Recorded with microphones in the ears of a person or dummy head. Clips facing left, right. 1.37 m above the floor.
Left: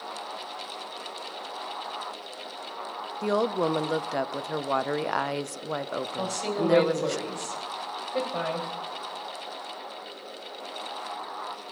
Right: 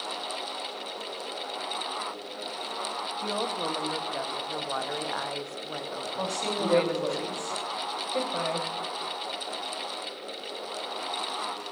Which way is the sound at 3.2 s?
60° left (ahead or behind).